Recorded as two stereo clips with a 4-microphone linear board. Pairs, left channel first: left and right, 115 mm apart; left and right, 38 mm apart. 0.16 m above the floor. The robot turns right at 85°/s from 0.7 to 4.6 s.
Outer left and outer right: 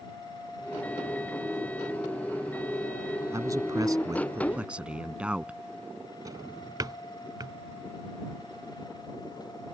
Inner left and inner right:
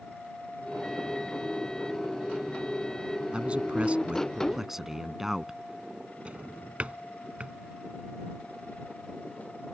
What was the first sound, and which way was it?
A man speaking, 125° right.